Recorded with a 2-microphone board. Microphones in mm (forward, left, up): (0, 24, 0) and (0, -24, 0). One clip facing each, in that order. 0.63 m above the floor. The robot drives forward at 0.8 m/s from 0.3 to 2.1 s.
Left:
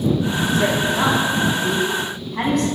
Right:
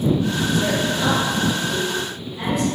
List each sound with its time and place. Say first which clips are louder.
0.5 s a woman speaking: left 5 dB; 45° left (ahead or behind), 6 m; by 2.7 s 55° left (ahead or behind), 5.5 m